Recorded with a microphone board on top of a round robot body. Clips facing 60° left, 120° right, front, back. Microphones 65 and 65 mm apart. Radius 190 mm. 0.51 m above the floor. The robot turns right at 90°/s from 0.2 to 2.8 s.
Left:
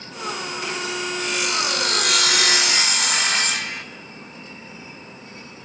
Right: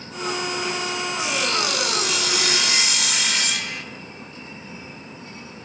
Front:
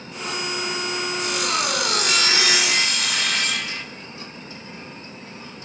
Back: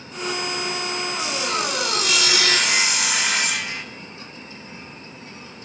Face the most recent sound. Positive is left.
turn(degrees=100)